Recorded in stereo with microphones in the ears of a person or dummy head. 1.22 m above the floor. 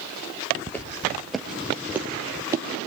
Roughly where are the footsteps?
Centre.